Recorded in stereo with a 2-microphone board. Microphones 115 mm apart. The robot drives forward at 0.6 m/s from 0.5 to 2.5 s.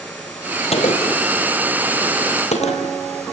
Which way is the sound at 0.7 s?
60° left (ahead or behind).